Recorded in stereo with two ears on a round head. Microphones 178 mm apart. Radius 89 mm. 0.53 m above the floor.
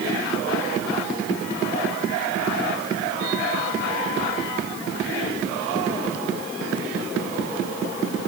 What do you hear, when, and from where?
Only background noise.